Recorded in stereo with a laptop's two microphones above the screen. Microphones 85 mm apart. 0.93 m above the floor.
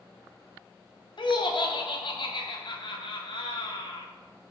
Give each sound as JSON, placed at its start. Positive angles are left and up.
{"t": 1.2, "sound": "laughter", "side_deg": 65, "distance_m": 0.6}